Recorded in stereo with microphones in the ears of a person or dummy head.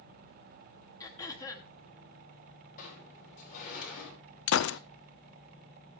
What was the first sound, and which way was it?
Throat clearing, 20° left (ahead or behind).